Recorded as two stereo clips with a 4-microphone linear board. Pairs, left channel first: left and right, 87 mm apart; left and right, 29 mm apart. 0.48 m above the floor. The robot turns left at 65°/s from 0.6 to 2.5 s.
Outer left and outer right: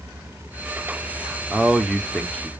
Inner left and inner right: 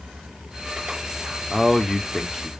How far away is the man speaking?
About 0.9 m.